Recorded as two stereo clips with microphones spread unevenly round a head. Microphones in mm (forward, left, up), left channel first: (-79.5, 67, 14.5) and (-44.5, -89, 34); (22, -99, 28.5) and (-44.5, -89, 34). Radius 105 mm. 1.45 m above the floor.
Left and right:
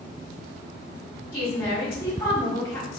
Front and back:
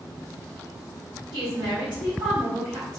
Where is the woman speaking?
170° left, 1.7 m.